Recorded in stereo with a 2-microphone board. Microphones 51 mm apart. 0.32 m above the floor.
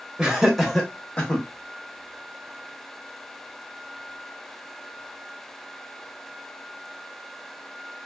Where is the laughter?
20° right (ahead or behind), 1.0 m; by 1.4 s 30° left (ahead or behind), 1.0 m.